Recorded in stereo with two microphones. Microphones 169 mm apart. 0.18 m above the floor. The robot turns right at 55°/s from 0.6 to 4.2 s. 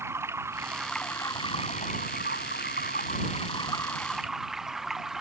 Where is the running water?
15° right; by 5.2 s straight behind.